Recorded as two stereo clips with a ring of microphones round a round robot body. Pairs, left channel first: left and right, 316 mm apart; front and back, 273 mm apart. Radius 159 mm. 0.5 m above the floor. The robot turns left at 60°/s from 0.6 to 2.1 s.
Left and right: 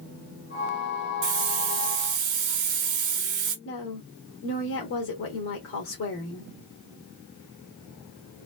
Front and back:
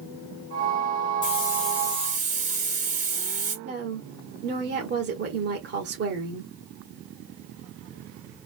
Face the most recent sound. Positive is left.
turn(degrees=135)